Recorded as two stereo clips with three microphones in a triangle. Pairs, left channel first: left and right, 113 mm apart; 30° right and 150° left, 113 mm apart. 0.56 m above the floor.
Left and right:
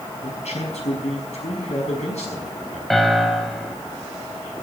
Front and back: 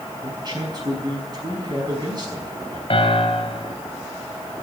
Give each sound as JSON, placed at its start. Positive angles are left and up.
{"t": 0.2, "sound": "a man speaking", "azimuth_deg": 100, "distance_m": 5.5}
{"t": 2.9, "sound": "a piano", "azimuth_deg": 0, "distance_m": 1.6}